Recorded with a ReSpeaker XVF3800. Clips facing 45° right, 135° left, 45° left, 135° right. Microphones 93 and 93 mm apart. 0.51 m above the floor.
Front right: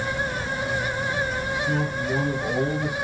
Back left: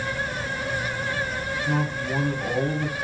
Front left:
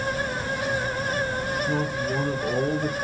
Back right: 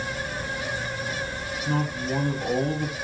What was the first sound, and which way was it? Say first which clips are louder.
A man speaking: back left 1 dB, front left 1 dB; 175° right.